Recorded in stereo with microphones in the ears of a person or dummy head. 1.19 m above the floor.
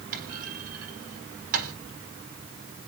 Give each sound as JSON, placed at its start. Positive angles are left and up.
{"t": 0.1, "sound": "a clunk", "side_deg": -55, "distance_m": 4.0}